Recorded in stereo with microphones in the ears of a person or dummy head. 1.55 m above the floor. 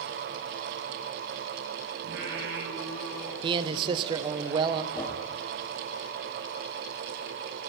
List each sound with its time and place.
2.0 s singing: 60° right (ahead or behind), 2 m
3.4 s a man speaking: 25° right (ahead or behind), 0.5 m
4.9 s a whoosh: 10° left (ahead or behind), 1.8 m